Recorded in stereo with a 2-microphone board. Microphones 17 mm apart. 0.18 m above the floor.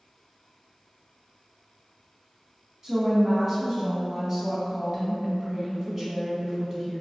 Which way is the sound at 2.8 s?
35° right (ahead or behind).